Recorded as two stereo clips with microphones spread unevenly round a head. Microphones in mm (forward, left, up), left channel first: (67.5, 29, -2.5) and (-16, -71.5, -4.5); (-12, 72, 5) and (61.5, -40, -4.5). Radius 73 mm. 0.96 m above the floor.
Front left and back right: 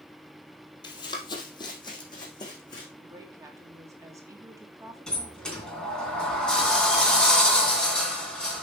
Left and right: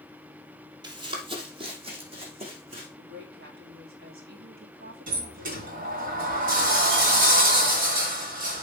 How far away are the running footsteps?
About 1.7 m.